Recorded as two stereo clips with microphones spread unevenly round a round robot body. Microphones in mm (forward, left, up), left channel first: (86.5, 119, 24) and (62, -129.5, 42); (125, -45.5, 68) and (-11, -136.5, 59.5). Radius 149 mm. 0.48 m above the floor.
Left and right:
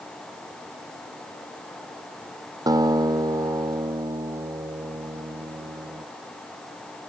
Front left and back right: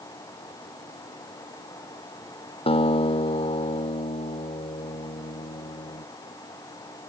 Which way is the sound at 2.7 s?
20° right.